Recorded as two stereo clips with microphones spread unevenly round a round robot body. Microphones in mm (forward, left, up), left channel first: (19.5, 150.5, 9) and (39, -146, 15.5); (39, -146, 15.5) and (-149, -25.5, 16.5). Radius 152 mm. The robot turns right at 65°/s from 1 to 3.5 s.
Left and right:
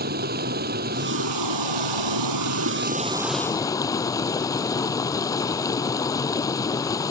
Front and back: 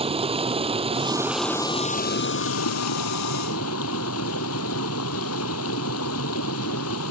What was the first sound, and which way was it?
Running water, 150° right.